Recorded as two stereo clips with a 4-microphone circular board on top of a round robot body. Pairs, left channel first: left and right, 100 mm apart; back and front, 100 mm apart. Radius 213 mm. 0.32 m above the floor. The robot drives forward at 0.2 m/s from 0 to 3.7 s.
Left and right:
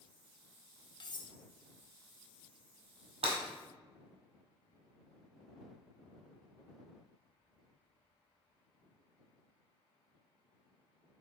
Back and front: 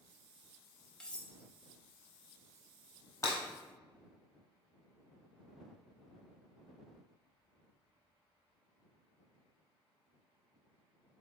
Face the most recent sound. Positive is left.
turn(degrees=-120)